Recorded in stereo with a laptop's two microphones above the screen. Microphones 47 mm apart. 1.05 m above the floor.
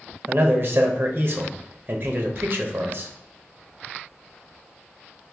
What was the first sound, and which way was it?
A man speaking, 45° right (ahead or behind).